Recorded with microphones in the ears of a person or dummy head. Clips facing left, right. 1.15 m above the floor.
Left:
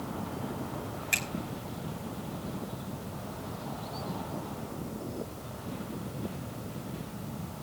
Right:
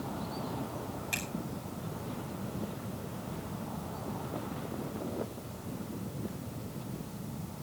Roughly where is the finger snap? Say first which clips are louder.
Left 1 dB; left.